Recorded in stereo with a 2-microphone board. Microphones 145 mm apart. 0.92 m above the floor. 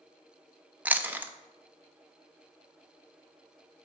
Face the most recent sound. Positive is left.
turn(degrees=-10)  # may be behind; listen again after turning